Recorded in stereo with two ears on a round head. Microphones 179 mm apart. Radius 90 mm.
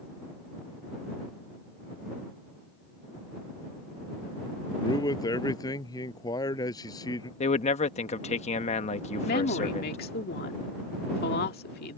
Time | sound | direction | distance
4.8 | a man speaking | 20° left (ahead or behind) | ?
7.4 | a man speaking | 35° left (ahead or behind) | ?
9.2 | a woman speaking | 50° left (ahead or behind) | ?